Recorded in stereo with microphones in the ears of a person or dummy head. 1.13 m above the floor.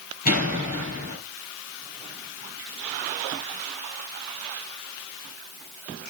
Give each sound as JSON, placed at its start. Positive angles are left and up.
{"t": 0.2, "sound": "a door slam", "side_deg": 45, "distance_m": 9.0}